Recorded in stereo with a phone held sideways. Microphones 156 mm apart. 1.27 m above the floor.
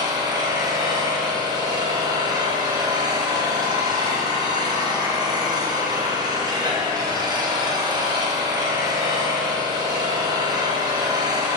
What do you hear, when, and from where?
0.0 s an engine running: 25° right (ahead or behind), 1.0 m